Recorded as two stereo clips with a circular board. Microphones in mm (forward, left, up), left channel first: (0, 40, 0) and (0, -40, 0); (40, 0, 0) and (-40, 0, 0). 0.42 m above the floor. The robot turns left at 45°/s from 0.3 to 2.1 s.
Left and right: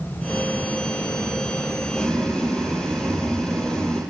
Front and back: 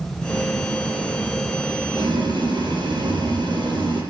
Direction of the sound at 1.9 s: Straight behind.